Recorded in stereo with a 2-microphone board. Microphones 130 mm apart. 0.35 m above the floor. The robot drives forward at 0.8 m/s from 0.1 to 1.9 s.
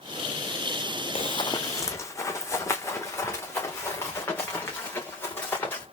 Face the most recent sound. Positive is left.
turn(degrees=15)  # may be behind; listen again after turning